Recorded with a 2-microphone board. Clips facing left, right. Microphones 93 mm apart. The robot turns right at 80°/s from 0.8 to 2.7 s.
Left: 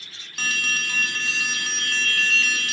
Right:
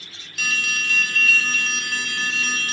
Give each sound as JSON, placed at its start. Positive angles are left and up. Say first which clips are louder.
{"t": 0.4, "sound": "an alarm", "louder": "right 1 dB", "azimuth_deg": 105, "distance_m": 0.8}